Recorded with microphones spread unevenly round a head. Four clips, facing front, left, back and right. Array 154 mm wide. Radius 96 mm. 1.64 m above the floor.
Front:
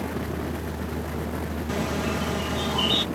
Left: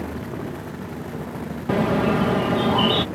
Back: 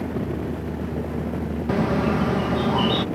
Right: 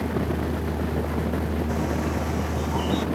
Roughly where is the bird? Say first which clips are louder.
Left 11 dB, back 7 dB; left.